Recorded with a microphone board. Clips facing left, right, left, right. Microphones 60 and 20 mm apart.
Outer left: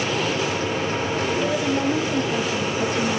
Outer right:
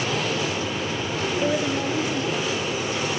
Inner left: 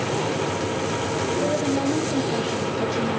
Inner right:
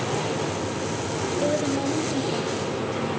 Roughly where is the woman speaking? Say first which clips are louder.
Even, even; centre.